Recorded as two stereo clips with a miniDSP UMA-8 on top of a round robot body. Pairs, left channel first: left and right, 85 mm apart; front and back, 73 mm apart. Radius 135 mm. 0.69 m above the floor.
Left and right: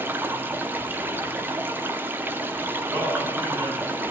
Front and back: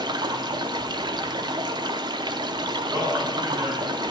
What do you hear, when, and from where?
0.0 s running water: 155° right, 0.8 m
2.9 s a man speaking: 155° right, 7 m